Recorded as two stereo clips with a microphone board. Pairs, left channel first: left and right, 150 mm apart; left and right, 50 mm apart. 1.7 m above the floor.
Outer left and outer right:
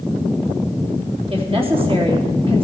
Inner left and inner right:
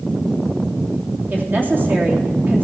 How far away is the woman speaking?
About 3 m.